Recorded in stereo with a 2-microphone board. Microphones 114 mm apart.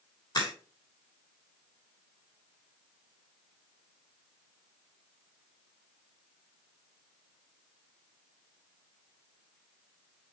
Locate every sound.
0.3 s a crack: 40° left (ahead or behind), 3.5 m